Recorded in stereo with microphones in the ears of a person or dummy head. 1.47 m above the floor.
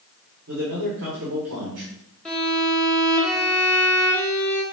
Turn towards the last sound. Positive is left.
turn(degrees=0)  # may be behind; listen again after turning